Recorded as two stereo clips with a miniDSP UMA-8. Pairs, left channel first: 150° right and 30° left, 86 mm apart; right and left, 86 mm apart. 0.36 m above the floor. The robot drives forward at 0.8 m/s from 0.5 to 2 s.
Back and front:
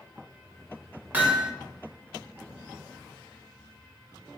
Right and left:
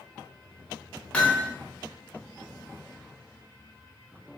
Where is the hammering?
25° right, 0.8 m; by 1.5 s 50° right, 0.7 m.